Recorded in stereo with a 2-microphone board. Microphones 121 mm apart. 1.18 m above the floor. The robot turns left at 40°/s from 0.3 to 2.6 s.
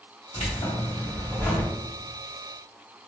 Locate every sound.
0.3 s keys jangling: 65° left, 1.9 m; by 1.7 s 10° left, 1.9 m